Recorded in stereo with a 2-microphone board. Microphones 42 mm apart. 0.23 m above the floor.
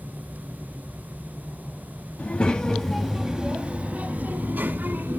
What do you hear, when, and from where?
2.2 s a child speaking: 35° left (ahead or behind), 0.8 m; by 5.2 s 60° right (ahead or behind), 1.5 m